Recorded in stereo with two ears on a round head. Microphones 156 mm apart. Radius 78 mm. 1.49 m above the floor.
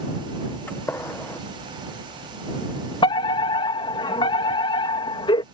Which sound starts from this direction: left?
A fire alarm, at 3.0 s.